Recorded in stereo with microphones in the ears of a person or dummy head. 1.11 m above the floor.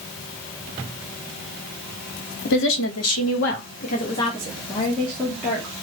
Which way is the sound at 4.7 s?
5° left (ahead or behind).